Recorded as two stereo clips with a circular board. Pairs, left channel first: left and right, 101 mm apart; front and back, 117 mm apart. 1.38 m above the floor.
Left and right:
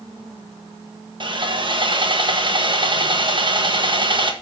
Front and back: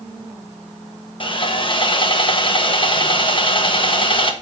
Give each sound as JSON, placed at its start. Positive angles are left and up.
{"t": 1.2, "sound": "sawing", "azimuth_deg": -50, "distance_m": 1.2}